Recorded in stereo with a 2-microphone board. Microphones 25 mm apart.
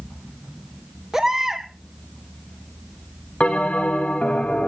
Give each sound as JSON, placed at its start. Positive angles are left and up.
{"t": 1.1, "sound": "a baby crying", "side_deg": -25, "distance_m": 2.0}
{"t": 3.4, "sound": "a bell", "side_deg": 55, "distance_m": 2.5}